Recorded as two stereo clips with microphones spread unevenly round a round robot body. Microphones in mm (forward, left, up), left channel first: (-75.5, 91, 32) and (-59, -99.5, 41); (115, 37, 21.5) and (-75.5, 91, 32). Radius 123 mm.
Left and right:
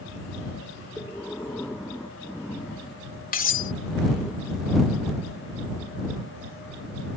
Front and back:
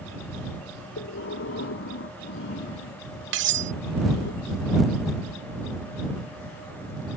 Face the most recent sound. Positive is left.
turn(degrees=140)